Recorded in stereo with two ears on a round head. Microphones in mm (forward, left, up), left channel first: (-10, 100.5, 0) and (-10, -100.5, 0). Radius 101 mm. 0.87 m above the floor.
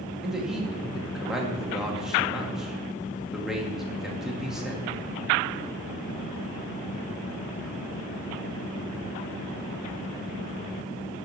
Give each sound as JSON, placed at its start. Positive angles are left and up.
{"t": 0.2, "sound": "a man speaking", "side_deg": 0, "distance_m": 1.3}